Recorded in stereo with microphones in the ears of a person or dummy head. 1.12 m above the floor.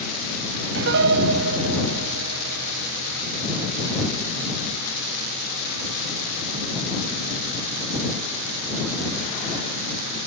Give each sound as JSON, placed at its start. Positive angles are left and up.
{"t": 0.8, "sound": "a piano", "side_deg": -65}